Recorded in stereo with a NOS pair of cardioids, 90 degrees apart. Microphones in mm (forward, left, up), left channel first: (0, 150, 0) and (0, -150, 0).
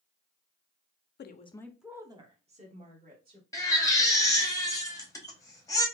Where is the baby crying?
10° left, 0.9 m.